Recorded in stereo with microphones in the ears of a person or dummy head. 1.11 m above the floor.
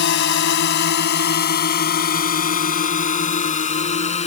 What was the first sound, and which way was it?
A drone, 70° left (ahead or behind).